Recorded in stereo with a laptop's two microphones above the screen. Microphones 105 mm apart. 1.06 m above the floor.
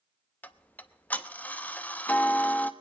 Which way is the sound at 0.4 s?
15° left (ahead or behind).